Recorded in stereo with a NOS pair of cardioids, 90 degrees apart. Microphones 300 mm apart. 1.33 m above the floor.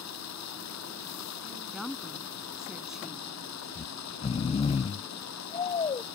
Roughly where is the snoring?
Ahead.